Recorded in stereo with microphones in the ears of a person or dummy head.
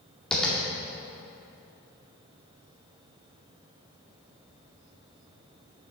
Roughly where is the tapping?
Centre.